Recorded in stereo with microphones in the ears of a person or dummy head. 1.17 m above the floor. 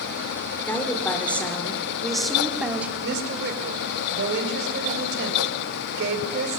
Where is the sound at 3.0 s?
65° right (ahead or behind), 5.5 m.